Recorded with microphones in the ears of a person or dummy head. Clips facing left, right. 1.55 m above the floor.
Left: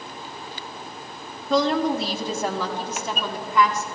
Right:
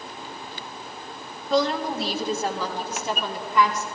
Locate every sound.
1.5 s a woman speaking: 80° left, 1.3 m; by 3.9 s 85° left, 3 m